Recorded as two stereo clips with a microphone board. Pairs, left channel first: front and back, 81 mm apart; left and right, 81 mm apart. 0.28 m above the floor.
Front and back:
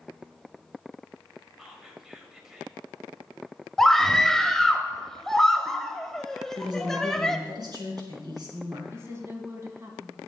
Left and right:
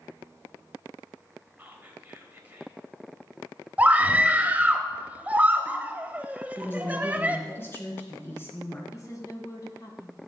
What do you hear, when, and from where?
1.6 s whispering: 105° right, 1.2 m
3.8 s a scream: 75° right, 0.9 m
6.6 s a woman speaking: 150° left, 3.5 m
8.9 s a woman speaking: 130° left, 2.5 m